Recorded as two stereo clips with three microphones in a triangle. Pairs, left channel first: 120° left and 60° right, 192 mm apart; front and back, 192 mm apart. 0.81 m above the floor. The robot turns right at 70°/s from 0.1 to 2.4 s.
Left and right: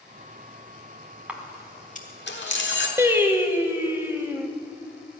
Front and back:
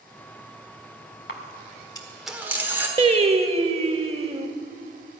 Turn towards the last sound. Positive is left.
turn(degrees=-135)